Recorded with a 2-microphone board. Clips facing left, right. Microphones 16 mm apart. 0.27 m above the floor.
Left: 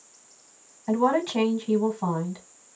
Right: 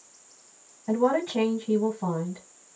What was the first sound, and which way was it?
A woman speaking, 45° left (ahead or behind).